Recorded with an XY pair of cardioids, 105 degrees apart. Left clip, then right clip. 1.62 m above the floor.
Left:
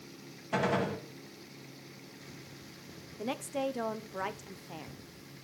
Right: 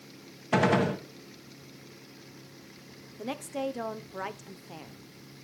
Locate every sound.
0.5 s a gunshot: 55° right, 1.1 m
3.2 s a woman speaking: straight ahead, 0.6 m